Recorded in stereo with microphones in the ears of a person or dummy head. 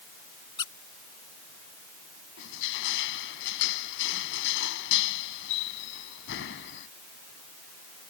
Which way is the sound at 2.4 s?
70° left (ahead or behind).